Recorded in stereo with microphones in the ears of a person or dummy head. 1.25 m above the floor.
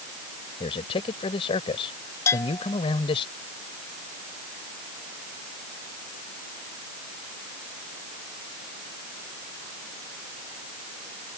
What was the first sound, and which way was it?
A man speaking, 25° left (ahead or behind).